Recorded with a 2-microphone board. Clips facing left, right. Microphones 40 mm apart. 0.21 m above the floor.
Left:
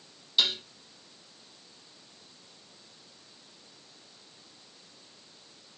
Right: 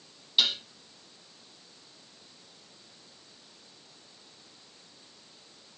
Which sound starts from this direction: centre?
Dishes clattering, at 0.4 s.